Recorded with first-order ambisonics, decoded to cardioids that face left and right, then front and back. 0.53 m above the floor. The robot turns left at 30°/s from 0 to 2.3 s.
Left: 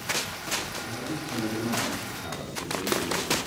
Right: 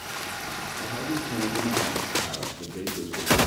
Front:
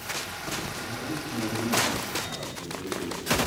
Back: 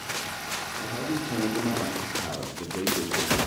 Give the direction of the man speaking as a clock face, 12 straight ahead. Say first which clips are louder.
Right 4 dB, back 3 dB; 4 o'clock.